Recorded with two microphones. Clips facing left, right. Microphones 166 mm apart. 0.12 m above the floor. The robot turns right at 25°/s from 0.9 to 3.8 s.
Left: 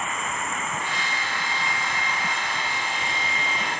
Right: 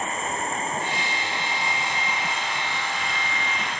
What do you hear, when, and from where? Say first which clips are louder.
0.0 s an insect: right 2 dB; 35° right; by 3.8 s 35° left